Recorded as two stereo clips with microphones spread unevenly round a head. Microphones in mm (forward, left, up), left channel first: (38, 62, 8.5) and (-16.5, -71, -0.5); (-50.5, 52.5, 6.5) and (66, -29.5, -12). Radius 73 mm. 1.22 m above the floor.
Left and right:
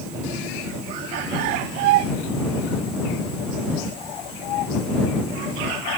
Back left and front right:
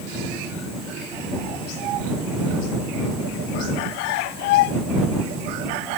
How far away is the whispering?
I don't hear whispering.